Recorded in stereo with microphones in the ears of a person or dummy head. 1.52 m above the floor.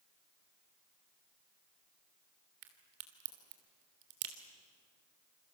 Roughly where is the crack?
Right.